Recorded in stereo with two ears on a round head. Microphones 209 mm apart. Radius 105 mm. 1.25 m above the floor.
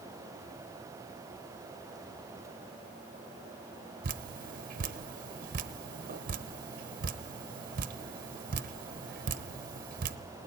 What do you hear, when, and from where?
4.0 s dripping: 40° right (ahead or behind), 0.9 m